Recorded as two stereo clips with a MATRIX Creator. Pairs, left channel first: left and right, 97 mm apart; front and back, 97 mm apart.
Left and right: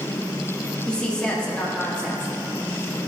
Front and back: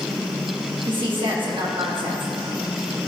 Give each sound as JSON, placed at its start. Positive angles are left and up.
{"t": 0.9, "sound": "a woman speaking", "azimuth_deg": 165, "distance_m": 1.5}